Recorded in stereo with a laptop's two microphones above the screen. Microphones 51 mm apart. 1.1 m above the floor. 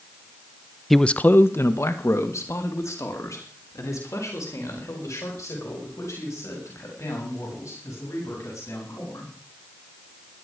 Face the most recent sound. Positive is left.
turn(degrees=85)